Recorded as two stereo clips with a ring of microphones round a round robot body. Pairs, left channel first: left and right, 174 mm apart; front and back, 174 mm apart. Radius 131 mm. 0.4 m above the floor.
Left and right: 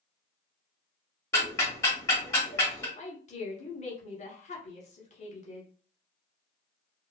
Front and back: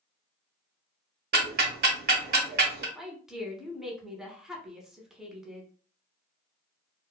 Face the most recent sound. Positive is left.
turn(degrees=95)